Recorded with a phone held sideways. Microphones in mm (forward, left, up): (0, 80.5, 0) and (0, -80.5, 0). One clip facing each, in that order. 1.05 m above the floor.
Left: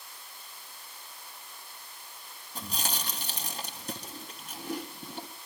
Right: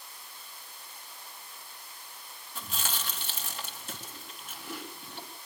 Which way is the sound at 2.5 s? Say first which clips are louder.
Left 2 dB; 35° left (ahead or behind).